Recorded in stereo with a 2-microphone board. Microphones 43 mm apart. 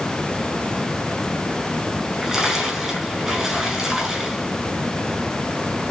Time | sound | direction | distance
2.0 | a splash | 5° right (ahead or behind) | 5 m